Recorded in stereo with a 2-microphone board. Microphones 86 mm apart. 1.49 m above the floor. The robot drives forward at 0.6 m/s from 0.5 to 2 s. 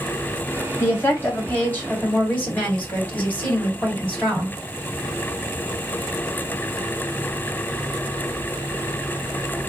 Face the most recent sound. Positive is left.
turn(degrees=20)  # may be behind; listen again after turning